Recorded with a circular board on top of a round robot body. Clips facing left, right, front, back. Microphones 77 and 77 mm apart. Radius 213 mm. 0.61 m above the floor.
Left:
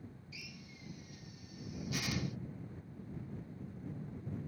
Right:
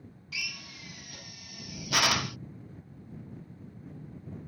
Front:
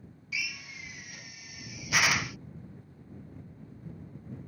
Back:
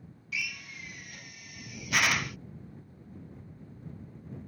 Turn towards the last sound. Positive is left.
turn(degrees=-85)